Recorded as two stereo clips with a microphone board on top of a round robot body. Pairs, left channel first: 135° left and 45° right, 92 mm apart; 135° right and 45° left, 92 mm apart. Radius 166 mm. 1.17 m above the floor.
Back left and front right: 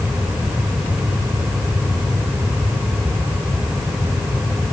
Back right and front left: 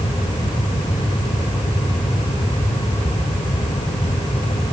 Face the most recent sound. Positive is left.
No sound to turn to.